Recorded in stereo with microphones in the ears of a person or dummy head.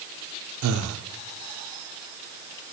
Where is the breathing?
80° right, 0.6 m.